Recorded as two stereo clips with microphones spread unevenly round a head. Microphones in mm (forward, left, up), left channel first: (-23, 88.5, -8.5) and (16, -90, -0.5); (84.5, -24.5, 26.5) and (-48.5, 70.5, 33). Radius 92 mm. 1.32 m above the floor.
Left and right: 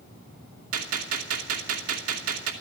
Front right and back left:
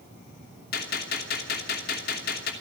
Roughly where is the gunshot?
Right.